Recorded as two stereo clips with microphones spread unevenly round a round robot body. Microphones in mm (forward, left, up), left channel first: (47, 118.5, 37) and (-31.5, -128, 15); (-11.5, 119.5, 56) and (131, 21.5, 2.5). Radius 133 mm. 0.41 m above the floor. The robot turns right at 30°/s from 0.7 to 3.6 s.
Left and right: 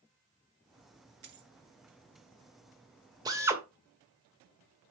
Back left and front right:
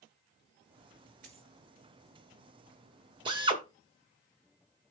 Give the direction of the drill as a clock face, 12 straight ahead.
1 o'clock.